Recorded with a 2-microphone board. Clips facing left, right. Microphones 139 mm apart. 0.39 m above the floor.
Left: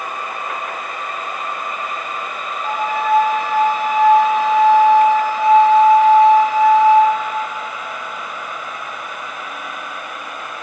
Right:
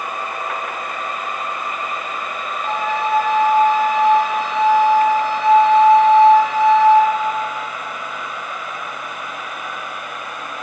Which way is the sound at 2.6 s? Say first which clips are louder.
Left 2 dB; 10° left (ahead or behind).